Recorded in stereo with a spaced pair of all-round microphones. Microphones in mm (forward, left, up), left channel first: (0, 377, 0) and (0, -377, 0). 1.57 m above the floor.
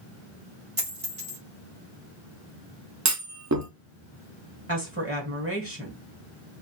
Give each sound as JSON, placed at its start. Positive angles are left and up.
{"t": 0.8, "sound": "a dropped coin", "side_deg": -40, "distance_m": 1.5}
{"t": 3.0, "sound": "a clunk", "side_deg": -25, "distance_m": 0.6}
{"t": 4.7, "sound": "a woman speaking", "side_deg": -15, "distance_m": 1.1}